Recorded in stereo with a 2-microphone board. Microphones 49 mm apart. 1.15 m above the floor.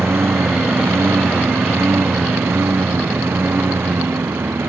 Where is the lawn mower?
65° right (ahead or behind); by 4.7 s 60° right (ahead or behind).